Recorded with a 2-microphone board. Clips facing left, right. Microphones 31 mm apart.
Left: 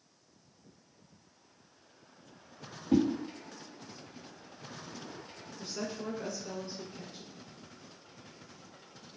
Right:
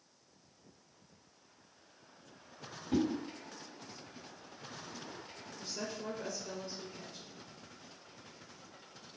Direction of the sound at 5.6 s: 25° left (ahead or behind).